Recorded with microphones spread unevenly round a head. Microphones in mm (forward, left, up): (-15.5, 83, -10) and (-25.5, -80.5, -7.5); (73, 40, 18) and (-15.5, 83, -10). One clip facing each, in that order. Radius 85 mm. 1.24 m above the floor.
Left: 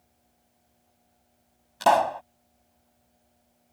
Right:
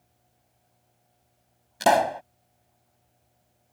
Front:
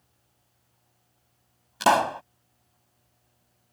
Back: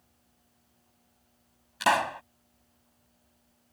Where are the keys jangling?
No keys jangling in this recording.